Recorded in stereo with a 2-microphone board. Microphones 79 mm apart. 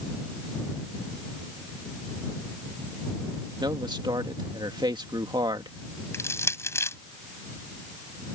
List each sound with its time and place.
3.6 s a man speaking: 70° right (ahead or behind)
6.1 s crushing: 35° left (ahead or behind)